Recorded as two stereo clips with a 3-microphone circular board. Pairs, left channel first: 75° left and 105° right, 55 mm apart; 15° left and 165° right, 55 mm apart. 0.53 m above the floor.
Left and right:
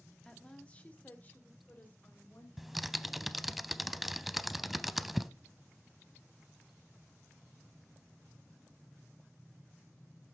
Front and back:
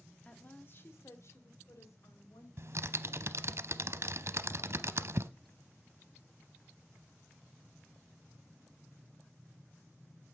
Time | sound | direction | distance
0.2 | a woman speaking | 20° left | 1.2 m
2.6 | typing on a keyboard | 170° left | 0.5 m